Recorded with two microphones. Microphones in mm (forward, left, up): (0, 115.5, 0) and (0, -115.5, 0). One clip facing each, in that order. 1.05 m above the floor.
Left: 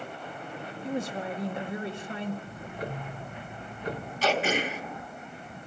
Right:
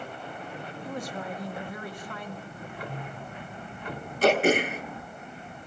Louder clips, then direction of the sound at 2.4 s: Left 2 dB; 40° left (ahead or behind).